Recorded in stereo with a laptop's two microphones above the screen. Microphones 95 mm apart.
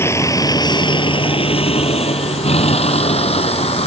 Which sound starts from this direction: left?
A vehicle, at 0.0 s.